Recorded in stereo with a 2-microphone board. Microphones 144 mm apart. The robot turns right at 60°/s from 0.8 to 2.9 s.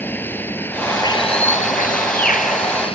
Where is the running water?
15° left; by 3.0 s 140° left.